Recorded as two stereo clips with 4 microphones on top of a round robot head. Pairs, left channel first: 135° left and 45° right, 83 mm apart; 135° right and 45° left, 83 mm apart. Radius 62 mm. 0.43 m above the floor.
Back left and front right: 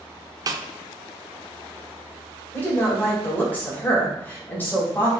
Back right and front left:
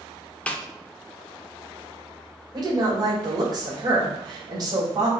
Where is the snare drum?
60° right, 0.6 m.